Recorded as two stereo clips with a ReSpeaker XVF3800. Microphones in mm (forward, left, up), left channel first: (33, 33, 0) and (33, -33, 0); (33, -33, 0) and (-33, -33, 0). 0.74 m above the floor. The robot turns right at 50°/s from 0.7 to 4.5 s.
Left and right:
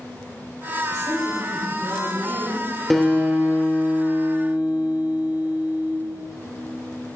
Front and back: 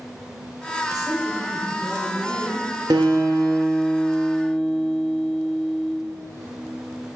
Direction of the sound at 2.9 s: 175° left.